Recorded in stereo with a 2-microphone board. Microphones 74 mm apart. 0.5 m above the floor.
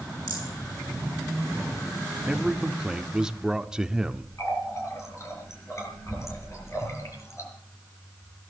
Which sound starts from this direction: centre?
A man speaking, at 2.3 s.